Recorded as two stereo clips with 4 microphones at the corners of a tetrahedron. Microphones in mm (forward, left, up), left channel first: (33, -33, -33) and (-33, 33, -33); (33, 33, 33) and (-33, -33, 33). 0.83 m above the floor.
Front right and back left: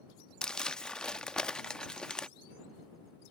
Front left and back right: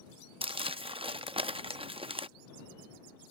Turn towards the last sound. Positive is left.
turn(degrees=-125)